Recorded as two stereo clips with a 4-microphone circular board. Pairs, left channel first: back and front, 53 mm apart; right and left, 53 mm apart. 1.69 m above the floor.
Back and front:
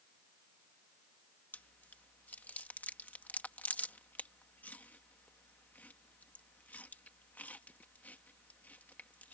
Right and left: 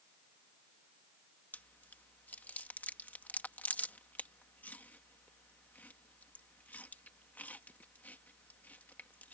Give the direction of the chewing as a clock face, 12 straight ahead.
4 o'clock.